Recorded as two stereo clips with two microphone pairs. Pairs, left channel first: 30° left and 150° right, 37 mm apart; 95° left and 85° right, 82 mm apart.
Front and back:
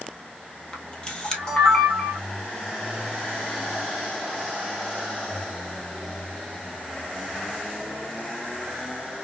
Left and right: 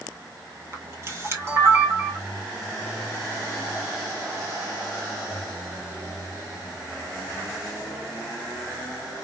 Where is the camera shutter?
35° right, 1.3 m.